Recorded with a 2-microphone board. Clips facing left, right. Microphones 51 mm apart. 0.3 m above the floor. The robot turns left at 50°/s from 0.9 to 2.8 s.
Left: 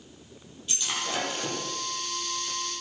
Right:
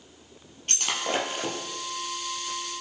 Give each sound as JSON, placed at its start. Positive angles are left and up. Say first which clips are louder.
{"t": 0.7, "sound": "breaking glass", "louder": "right 3 dB", "side_deg": -55, "distance_m": 4.5}